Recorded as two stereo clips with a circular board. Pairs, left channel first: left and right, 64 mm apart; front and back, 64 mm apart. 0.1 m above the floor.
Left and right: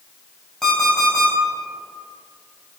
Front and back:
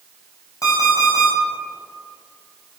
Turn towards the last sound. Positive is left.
turn(degrees=5)